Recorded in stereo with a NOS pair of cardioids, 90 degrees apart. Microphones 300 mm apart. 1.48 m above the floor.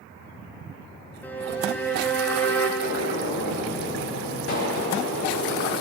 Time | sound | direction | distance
1.2 | a violin | 5° left | 1.9 m
2.8 | a gunshot | 50° left | 5 m